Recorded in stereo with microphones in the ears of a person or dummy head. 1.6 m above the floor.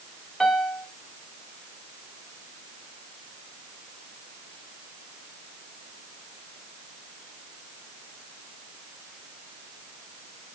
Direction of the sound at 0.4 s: 5° left (ahead or behind).